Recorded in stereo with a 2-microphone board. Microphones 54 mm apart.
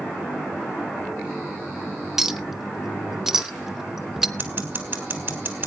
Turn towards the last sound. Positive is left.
turn(degrees=-45)  # may be behind; listen again after turning